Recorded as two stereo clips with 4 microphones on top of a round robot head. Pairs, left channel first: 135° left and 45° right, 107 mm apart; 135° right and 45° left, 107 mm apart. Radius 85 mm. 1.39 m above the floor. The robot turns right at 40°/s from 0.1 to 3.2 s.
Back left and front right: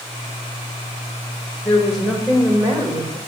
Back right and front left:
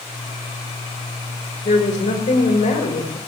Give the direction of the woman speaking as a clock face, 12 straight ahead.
5 o'clock.